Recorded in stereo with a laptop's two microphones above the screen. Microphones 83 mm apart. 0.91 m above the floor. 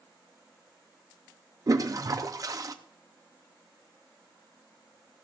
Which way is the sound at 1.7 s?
45° right (ahead or behind).